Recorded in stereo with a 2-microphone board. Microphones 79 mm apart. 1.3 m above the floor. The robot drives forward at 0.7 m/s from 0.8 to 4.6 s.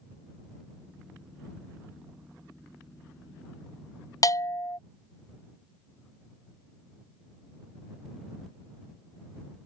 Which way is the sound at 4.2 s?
45° left (ahead or behind).